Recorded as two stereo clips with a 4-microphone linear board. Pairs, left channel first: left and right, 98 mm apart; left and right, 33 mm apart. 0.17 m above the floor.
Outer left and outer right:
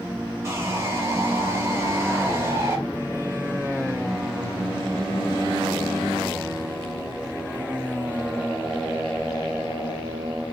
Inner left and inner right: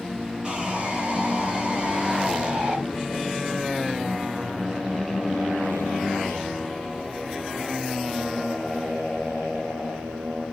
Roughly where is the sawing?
Right.